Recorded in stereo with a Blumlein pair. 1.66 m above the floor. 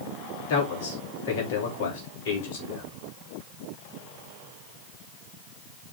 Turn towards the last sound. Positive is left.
turn(degrees=50)